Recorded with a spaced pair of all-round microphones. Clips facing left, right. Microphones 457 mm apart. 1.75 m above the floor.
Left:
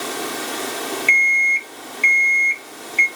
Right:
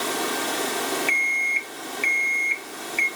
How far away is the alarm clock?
About 0.8 m.